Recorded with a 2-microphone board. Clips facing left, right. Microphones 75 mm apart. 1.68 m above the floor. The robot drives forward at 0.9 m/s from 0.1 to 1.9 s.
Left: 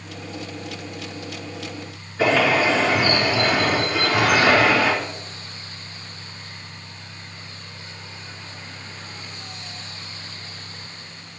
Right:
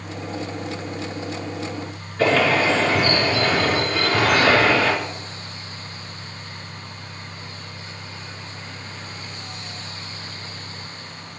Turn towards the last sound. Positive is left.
turn(degrees=10)  # may be behind; listen again after turning